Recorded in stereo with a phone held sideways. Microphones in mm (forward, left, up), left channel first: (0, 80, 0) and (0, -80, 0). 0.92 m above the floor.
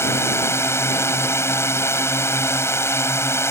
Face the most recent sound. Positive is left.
turn(degrees=15)  # may be behind; listen again after turning